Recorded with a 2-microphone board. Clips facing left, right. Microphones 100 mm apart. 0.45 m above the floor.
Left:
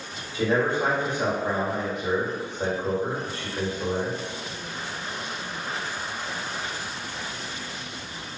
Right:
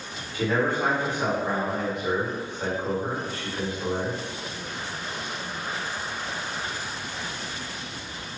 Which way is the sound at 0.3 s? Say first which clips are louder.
Left 1 dB; 30° left (ahead or behind).